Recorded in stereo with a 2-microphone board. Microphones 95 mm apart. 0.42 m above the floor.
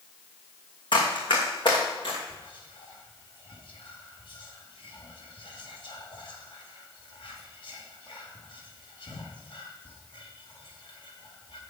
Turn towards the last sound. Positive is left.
turn(degrees=65)  # may be behind; listen again after turning